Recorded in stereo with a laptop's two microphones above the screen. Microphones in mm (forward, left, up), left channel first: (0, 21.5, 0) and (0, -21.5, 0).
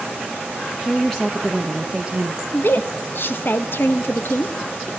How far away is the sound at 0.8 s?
About 1.1 m.